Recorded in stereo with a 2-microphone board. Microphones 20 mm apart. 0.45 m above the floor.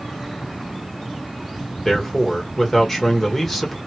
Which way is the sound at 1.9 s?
15° left (ahead or behind).